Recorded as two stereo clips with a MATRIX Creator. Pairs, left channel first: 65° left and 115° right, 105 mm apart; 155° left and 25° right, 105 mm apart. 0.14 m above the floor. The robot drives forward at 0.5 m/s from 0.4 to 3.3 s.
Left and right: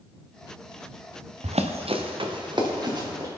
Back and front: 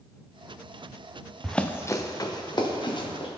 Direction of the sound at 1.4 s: 115° right.